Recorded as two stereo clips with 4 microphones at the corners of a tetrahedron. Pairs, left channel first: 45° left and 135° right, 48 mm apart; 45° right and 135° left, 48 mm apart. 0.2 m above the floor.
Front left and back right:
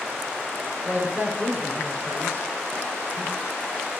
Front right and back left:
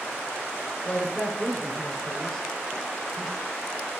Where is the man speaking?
105° right, 2.5 m; by 3.3 s 140° right, 3 m.